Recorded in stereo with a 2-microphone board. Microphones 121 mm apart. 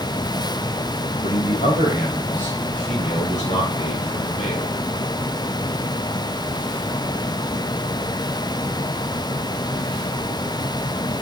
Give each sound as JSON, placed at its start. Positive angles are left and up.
{"t": 1.2, "sound": "a man speaking", "side_deg": 70, "distance_m": 4.0}